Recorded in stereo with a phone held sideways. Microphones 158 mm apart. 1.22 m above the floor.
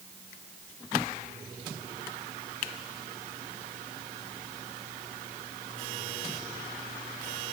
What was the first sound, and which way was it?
Only background noise.